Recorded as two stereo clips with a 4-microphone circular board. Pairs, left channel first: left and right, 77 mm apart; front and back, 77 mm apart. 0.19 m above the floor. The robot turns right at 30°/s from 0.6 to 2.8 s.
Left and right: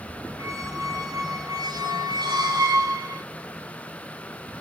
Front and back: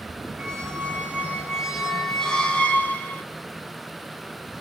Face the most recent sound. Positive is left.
turn(degrees=-65)